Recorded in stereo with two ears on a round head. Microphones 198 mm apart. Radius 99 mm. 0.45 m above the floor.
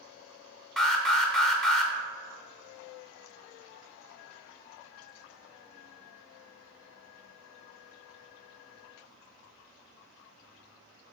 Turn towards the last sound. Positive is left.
turn(degrees=0)  # may be behind; listen again after turning